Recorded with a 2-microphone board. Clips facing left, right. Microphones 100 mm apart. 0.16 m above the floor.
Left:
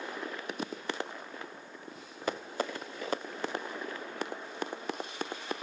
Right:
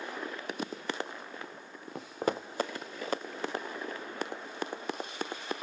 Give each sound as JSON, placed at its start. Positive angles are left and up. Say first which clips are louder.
{"t": 1.9, "sound": "footsteps", "louder": "right 5 dB", "side_deg": -80, "distance_m": 0.8}